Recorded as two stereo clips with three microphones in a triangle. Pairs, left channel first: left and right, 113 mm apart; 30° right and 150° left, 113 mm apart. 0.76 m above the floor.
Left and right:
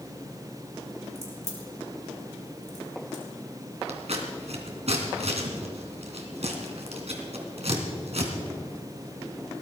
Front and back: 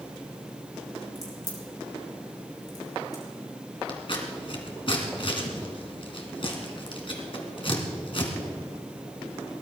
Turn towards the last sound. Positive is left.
turn(degrees=-70)